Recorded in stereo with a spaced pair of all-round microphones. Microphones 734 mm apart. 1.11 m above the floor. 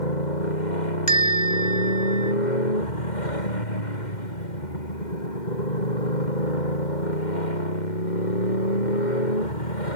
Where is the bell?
70° left (ahead or behind).